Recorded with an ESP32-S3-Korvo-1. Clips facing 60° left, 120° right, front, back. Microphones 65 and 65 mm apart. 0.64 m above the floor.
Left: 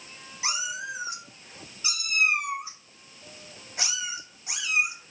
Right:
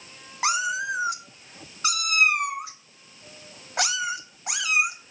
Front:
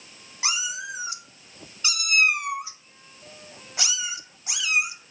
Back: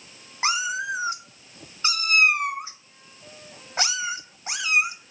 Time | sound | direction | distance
0.4 | a cat meowing | 130° right | 0.6 m